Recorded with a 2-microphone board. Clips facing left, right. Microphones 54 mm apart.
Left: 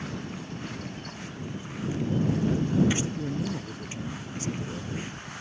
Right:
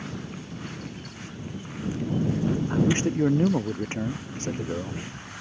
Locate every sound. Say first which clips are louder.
2.7 s a man speaking: right 2 dB; 45° right (ahead or behind)